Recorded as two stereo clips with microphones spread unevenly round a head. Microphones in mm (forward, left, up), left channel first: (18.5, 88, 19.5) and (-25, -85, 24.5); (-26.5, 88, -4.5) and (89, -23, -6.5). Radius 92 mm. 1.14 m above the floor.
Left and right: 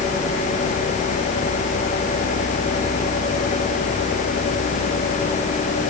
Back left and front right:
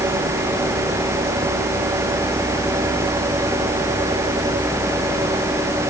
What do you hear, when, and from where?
Only background noise.